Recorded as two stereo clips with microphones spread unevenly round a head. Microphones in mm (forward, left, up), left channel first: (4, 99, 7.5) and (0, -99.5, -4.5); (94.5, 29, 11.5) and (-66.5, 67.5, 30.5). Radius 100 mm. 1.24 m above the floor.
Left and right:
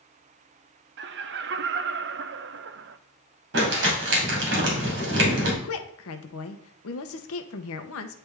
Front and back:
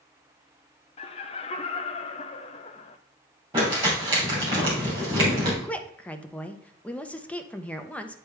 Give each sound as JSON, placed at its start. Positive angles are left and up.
{"t": 1.0, "sound": "laughter", "azimuth_deg": -65, "distance_m": 0.5}
{"t": 3.5, "sound": "crumpling", "azimuth_deg": -125, "distance_m": 3.0}
{"t": 5.6, "sound": "a woman speaking", "azimuth_deg": 70, "distance_m": 0.8}